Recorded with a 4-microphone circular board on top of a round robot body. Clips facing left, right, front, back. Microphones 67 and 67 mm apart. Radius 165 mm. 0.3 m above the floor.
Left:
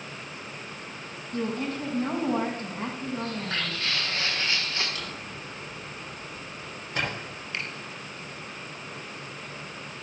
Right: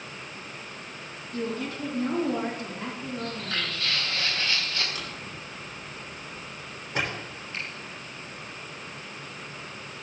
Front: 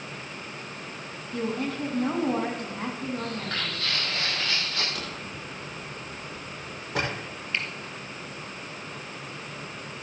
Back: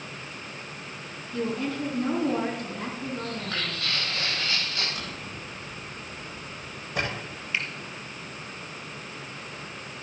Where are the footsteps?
25° left, 5.5 m.